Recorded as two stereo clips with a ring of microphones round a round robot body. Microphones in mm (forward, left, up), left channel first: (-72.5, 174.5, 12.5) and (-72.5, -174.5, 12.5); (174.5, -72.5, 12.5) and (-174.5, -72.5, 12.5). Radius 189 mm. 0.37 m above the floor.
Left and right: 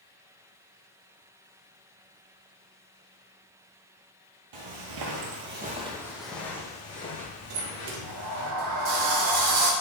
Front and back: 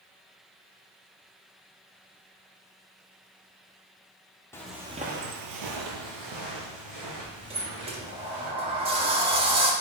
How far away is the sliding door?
About 0.7 m.